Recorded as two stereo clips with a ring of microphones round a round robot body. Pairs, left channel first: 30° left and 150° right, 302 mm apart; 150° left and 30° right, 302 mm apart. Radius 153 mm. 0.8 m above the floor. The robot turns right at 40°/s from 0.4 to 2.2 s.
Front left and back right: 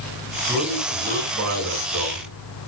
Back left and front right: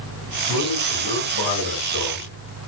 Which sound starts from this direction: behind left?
A man speaking, at 0.5 s.